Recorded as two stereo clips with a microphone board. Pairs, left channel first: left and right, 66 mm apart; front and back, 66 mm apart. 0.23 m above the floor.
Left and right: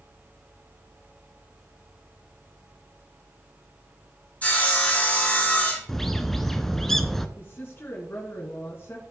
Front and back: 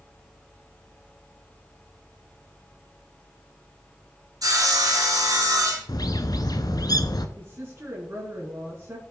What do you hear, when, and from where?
4.4 s sawing: 160° left, 2.5 m
5.9 s a bird: 5° left, 0.6 m
7.4 s a woman speaking: 135° left, 2 m